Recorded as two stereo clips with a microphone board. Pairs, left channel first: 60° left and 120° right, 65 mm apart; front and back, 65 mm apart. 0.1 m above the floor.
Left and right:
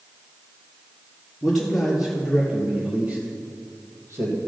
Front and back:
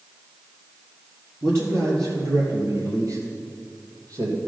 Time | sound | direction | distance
1.4 | a man speaking | 145° left | 2 m